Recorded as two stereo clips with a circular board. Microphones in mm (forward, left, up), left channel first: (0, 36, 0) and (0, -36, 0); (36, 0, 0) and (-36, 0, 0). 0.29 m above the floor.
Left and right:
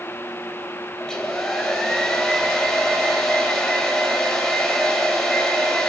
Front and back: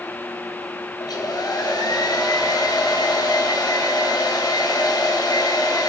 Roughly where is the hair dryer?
Ahead.